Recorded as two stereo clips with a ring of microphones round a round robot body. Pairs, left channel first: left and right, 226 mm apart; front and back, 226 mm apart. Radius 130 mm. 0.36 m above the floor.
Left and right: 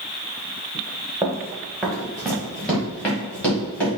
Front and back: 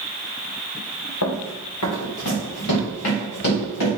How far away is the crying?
I don't hear crying.